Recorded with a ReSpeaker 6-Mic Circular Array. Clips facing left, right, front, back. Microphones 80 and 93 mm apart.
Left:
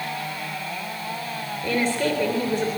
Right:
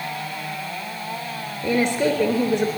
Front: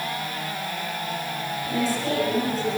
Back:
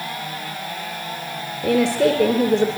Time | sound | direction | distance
1.6 | a woman speaking | 160° right | 3.5 m